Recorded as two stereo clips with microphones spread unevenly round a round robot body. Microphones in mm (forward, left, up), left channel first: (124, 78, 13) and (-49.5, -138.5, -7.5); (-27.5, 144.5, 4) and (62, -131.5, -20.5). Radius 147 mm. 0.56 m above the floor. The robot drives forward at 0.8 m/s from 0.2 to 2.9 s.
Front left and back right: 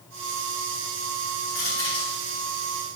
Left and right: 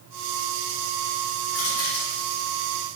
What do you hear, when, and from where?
1.5 s crushing: 130° left, 4 m; by 2.1 s 135° left, 4.5 m